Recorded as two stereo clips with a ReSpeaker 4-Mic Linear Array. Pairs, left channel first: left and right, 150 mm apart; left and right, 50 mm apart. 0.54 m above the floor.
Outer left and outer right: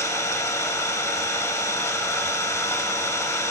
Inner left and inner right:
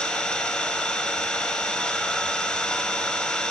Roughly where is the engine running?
Centre.